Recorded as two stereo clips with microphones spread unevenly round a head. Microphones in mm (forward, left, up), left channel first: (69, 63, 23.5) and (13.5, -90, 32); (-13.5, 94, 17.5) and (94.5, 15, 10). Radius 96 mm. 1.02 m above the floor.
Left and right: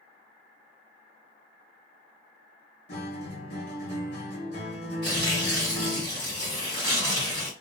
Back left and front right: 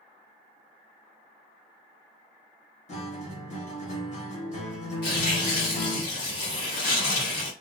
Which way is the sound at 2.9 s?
115° left.